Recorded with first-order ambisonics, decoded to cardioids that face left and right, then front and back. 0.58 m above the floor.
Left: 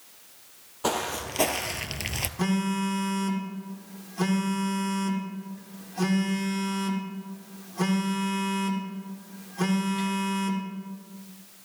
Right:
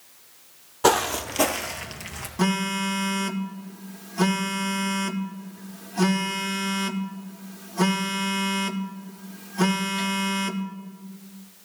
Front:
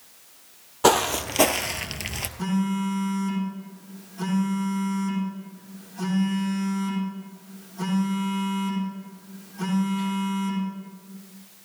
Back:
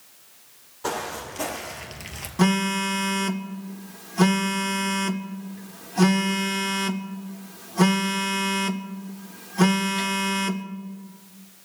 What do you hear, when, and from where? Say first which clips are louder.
0.8 s footsteps: right 8 dB, front 10 dB; 30° right, 1.0 m; by 2.3 s 65° left, 0.7 m
2.4 s a phone buzzing: right 6 dB, back 9 dB; 160° right, 0.7 m